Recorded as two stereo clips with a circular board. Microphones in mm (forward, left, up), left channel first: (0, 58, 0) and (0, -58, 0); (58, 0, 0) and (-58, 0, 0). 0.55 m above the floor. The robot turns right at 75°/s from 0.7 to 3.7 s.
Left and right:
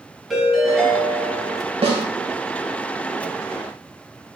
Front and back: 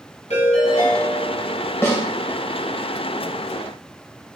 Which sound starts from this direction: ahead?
A ringtone, at 0.3 s.